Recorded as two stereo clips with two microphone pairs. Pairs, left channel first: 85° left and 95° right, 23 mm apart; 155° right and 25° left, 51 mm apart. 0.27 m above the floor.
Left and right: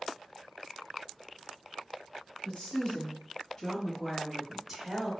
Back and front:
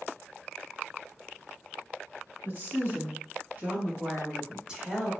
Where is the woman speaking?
50° left, 1.7 m; by 5.1 s 50° right, 1.0 m.